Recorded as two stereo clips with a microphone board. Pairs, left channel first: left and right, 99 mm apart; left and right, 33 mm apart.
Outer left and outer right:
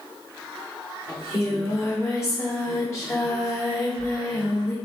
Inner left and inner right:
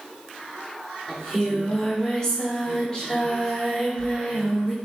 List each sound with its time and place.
1.1 s singing: 30° left (ahead or behind), 1.4 m